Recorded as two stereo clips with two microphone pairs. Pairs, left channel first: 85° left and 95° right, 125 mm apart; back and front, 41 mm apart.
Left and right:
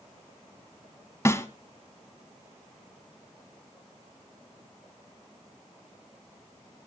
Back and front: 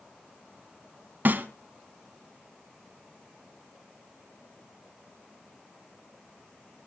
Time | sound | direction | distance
1.2 | a snare drum | 20° left | 1.4 m